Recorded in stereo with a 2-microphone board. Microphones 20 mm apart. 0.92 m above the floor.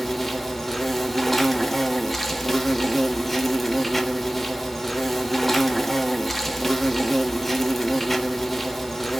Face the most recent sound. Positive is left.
turn(degrees=5)  # may be behind; listen again after turning